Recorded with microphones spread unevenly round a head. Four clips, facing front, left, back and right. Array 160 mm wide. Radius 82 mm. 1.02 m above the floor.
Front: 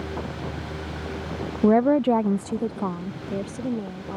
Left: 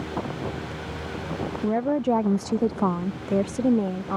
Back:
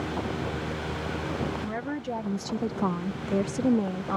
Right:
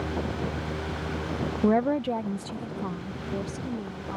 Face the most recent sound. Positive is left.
turn(degrees=105)